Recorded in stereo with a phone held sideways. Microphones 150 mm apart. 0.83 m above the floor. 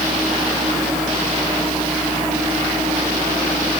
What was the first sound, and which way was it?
Only background noise.